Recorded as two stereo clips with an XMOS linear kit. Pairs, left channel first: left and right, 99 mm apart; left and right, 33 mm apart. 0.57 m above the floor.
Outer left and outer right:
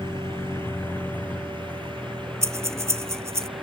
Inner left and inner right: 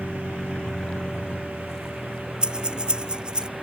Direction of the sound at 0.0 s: 25° left (ahead or behind).